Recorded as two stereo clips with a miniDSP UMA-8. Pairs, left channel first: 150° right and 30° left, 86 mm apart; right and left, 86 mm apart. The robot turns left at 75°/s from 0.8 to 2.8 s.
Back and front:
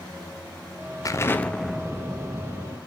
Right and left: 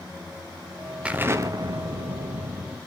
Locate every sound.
1.1 s an explosion: 165° left, 0.6 m; by 2.8 s 35° left, 0.6 m